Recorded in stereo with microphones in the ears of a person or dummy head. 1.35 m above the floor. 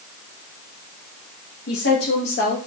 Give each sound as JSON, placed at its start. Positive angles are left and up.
{"t": 1.7, "sound": "a woman speaking", "side_deg": 80, "distance_m": 2.5}